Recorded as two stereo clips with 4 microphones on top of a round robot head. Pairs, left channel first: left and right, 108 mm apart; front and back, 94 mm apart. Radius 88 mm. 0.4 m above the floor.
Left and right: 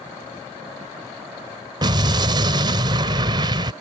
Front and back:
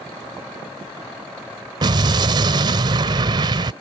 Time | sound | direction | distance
1.8 | an explosion | 140° right | ?